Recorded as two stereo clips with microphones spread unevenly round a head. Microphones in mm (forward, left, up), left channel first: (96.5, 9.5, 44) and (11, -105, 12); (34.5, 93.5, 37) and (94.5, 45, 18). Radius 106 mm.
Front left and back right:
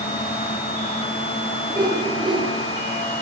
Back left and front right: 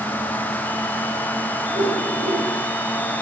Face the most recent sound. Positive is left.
turn(degrees=-70)